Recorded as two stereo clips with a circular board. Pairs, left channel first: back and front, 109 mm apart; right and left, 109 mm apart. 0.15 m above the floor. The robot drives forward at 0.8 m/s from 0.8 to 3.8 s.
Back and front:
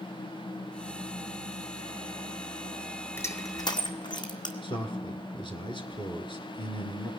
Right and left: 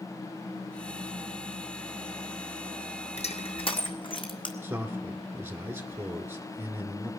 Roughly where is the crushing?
Right.